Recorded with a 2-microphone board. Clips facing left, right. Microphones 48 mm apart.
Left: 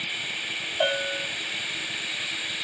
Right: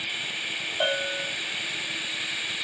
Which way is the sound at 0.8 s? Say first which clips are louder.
Left 1 dB; 10° right (ahead or behind).